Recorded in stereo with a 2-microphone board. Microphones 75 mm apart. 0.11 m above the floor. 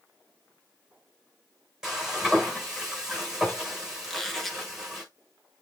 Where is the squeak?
5° left (ahead or behind), 1.0 m.